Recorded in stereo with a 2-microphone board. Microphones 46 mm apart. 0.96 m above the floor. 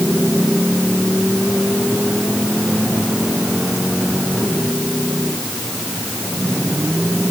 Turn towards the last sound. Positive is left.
No sound to turn to.